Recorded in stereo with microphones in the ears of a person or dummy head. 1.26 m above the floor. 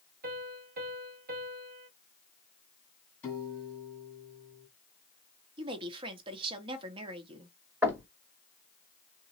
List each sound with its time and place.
0.2 s a piano: 45° right (ahead or behind), 1.1 m
3.2 s a piano: 10° left (ahead or behind), 1.5 m
5.6 s a woman speaking: 30° right (ahead or behind), 1.0 m
7.8 s knocking: 10° right (ahead or behind), 1.5 m